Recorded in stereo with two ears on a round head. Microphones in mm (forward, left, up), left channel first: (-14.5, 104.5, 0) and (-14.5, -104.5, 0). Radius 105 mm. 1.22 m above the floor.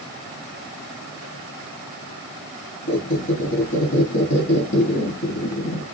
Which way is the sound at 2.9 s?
55° left (ahead or behind).